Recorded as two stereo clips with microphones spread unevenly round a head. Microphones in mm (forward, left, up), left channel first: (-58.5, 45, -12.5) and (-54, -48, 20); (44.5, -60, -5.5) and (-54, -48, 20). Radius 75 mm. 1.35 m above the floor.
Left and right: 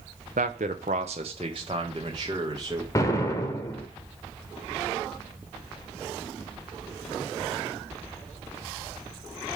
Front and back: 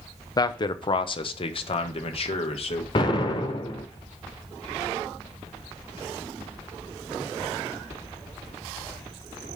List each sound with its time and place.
0.4 s a man speaking: 50° right, 0.9 m; by 2.9 s 15° right, 2 m
3.0 s an explosion: 20° left, 1.1 m